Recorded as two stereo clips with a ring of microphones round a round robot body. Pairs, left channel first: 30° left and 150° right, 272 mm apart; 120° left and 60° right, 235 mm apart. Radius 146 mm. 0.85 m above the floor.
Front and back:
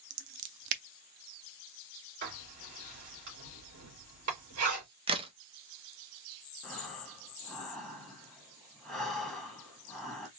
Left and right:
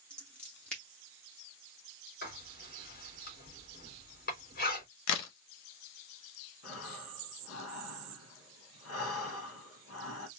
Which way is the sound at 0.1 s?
155° right.